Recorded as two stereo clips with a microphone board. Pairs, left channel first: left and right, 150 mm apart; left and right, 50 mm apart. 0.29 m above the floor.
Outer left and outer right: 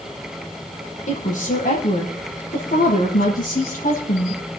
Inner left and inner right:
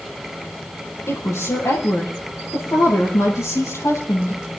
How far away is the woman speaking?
About 7 m.